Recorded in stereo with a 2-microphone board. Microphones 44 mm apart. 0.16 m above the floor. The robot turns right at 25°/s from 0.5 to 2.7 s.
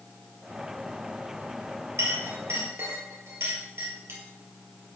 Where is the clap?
No clap in this recording.